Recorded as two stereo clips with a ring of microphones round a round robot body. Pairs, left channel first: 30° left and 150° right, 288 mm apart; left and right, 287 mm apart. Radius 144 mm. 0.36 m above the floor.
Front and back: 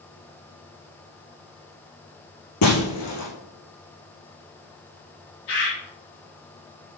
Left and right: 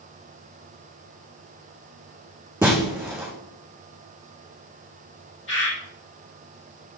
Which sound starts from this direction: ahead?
Breaking glass, at 2.6 s.